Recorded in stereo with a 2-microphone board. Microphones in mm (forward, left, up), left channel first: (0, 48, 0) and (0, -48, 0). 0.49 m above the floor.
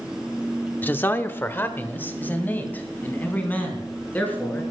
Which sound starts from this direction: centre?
A man speaking, at 0.8 s.